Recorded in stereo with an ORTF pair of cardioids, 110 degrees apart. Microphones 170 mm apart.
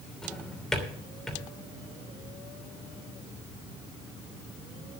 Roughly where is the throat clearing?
No throat clearing in this recording.